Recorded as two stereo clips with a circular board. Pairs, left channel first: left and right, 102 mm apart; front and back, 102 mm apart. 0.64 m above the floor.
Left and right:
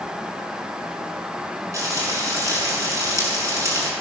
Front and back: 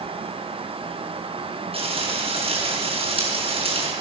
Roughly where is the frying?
Behind right.